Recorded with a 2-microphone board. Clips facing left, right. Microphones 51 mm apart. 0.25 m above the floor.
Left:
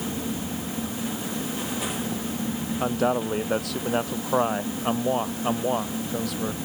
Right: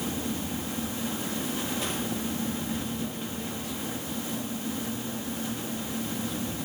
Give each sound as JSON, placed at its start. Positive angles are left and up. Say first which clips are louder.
{"t": 2.8, "sound": "a man speaking", "louder": "left 10 dB", "side_deg": 75}